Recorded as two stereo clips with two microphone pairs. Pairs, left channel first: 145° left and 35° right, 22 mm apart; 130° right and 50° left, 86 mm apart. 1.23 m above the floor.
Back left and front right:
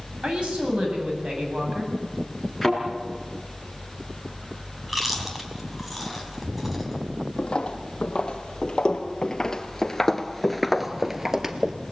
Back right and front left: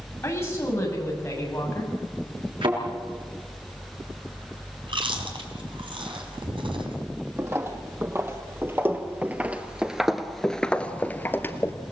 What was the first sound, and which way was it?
A woman speaking, 70° right.